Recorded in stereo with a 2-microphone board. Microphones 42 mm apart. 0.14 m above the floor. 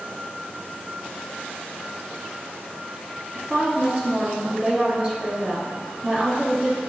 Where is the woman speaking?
30° right (ahead or behind), 1.3 m.